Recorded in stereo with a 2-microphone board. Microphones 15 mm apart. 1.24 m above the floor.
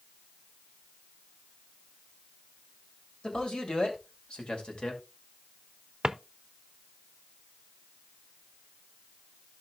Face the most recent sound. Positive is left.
turn(degrees=-40)  # may be behind; listen again after turning